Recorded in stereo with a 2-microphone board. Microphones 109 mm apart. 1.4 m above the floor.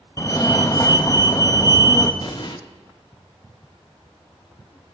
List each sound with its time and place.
0.2 s a fire alarm: 35° left (ahead or behind), 0.9 m
2.2 s an explosion: 40° left (ahead or behind), 0.8 m